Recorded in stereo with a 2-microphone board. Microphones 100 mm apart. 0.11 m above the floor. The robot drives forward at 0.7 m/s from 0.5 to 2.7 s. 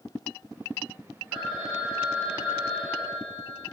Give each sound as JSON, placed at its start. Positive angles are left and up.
{"t": 1.3, "sound": "a phone ringing", "side_deg": -5, "distance_m": 3.5}